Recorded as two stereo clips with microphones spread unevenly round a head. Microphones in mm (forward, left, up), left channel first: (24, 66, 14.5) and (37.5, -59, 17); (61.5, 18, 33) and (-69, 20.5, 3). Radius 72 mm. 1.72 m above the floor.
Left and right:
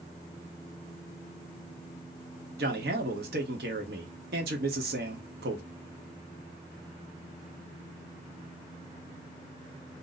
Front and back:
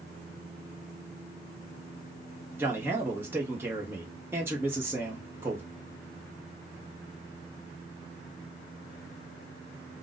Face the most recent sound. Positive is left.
turn(degrees=-105)